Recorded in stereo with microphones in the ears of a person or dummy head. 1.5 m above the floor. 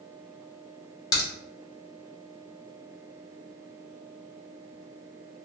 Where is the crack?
20° left (ahead or behind), 1.2 m.